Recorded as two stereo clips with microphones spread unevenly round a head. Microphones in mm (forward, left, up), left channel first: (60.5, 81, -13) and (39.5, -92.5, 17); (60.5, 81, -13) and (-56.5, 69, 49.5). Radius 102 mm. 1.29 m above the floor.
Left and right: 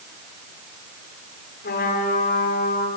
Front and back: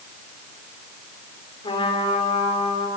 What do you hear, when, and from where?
1.6 s a trumpet: 55° left, 4.5 m